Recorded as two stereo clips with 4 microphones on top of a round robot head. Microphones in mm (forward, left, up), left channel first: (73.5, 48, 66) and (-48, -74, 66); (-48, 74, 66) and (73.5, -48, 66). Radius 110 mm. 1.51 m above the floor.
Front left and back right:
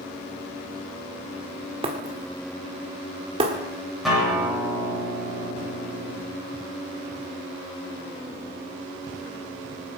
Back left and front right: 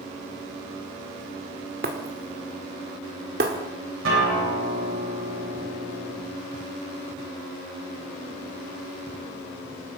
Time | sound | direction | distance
1.8 | breaking glass | 80° right | 1.6 m
4.0 | a guitar | 45° right | 8.5 m